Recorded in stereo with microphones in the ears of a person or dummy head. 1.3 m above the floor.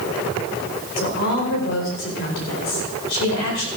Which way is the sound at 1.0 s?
70° left (ahead or behind).